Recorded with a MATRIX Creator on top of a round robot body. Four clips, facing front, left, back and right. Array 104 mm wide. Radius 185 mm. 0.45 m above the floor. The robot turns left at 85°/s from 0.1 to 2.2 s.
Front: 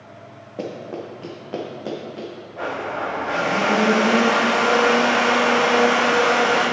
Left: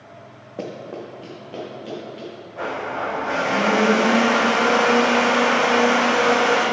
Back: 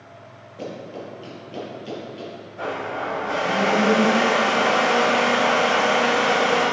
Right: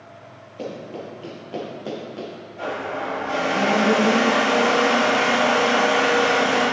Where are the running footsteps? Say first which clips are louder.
Left 1 dB, front 3 dB; 55° left, 2.5 m; by 2.3 s 45° right, 2.5 m.